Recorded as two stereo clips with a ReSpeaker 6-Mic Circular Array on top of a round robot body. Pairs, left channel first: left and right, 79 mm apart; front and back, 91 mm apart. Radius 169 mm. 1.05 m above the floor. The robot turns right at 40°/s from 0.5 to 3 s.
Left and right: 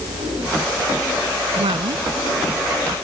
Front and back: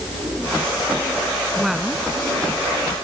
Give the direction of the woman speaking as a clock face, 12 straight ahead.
3 o'clock.